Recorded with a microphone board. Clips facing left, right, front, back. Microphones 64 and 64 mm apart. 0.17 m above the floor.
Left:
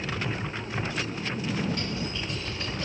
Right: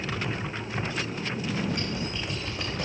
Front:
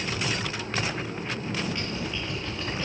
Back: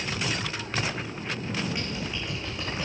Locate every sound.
1.7 s typing on a keyboard: 105° right, 4.5 m